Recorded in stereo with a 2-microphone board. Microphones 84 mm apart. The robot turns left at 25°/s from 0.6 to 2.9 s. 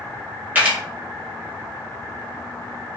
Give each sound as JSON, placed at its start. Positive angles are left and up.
{"t": 0.6, "sound": "a camera shutter", "side_deg": -20, "distance_m": 1.4}